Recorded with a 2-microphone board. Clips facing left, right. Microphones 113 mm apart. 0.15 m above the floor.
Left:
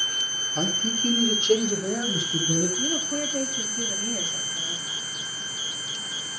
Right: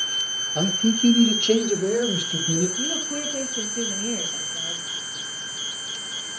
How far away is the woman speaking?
About 4.5 m.